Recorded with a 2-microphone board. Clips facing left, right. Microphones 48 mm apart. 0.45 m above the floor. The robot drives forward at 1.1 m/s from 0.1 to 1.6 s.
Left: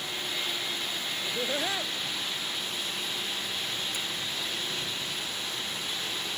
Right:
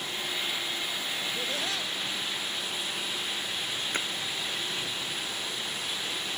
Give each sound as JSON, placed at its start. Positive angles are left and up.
{"t": 1.2, "sound": "laughter", "side_deg": 25}
{"t": 3.9, "sound": "a splash", "side_deg": -45}